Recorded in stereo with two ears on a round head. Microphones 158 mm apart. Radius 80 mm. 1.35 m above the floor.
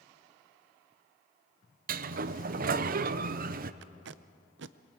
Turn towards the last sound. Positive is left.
turn(degrees=-75)  # may be behind; listen again after turning